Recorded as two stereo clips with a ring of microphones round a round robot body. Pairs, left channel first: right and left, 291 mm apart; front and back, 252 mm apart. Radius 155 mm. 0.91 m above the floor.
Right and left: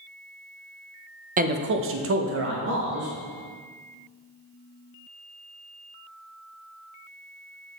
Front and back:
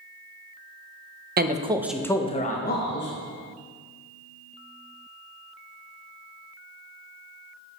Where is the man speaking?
145° left, 0.6 m; by 3.1 s 40° left, 1.1 m.